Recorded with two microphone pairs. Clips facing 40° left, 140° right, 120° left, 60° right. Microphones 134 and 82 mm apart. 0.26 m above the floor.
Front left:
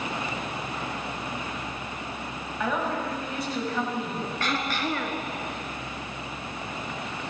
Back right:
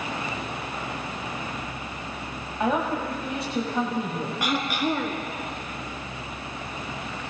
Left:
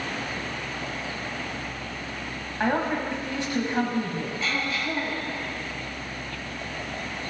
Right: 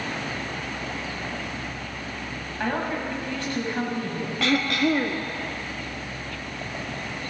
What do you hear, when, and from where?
2.6 s a woman speaking: 175° left, 1.6 m
4.4 s throat clearing: 60° right, 1.1 m